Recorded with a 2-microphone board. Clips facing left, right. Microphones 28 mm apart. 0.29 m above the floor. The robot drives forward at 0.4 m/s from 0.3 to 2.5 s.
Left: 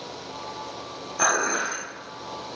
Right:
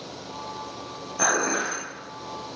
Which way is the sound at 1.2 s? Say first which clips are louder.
Left 1 dB; 10° left (ahead or behind).